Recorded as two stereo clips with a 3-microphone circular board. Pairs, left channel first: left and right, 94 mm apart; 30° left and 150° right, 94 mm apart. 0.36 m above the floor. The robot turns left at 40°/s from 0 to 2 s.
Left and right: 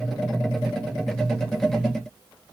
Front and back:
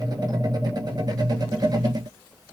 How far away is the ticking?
I don't hear ticking.